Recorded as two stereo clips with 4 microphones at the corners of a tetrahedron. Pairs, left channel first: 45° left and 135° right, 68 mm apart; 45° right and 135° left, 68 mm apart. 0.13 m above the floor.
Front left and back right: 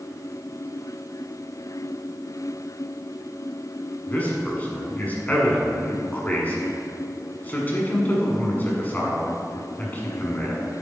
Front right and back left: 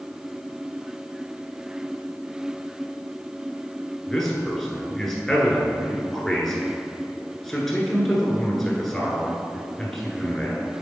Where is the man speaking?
35° left, 1.5 m.